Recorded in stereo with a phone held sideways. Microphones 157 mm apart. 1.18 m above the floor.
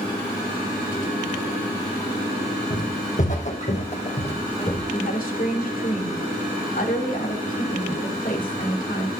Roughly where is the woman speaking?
Left.